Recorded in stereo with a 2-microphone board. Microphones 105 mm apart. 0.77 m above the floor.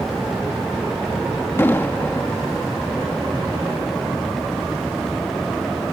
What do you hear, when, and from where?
1.6 s an explosion: 20° left (ahead or behind)